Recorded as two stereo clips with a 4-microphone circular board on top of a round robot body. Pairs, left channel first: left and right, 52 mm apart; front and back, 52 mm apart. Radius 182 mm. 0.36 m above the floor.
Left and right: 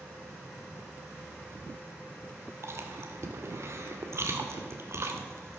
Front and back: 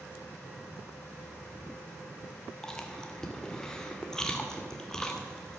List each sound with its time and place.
2.6 s chewing: 75° right, 2.5 m